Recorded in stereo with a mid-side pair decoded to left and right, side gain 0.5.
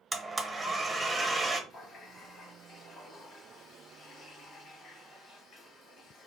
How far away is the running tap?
About 1.1 m.